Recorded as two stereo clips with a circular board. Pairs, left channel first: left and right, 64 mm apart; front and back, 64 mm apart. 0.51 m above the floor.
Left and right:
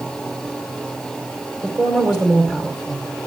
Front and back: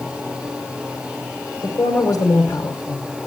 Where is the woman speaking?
35° right, 2 m.